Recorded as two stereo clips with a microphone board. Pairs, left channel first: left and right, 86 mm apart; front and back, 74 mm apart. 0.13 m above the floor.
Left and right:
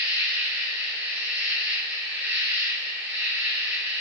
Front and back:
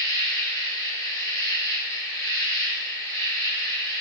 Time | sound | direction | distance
0.0 | an insect | 25° right | 2 m